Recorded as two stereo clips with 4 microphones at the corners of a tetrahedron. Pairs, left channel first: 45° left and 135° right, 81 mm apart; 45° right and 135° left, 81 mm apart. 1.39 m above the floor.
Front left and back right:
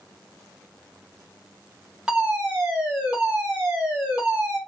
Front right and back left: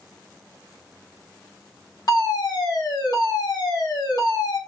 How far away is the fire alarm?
About 1.4 m.